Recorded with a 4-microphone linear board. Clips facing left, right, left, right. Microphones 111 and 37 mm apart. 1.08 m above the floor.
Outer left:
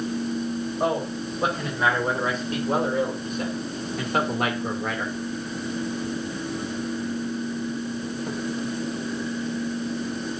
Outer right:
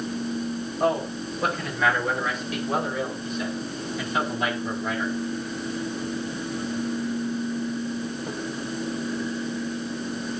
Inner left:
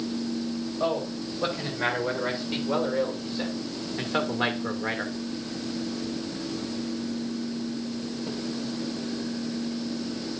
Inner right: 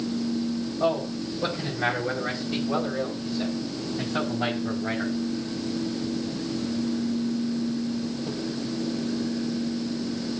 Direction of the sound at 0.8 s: 20° left (ahead or behind).